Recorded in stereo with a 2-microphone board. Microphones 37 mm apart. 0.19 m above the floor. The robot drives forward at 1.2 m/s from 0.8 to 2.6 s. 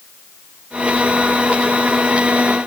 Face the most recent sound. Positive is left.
No sound to turn to.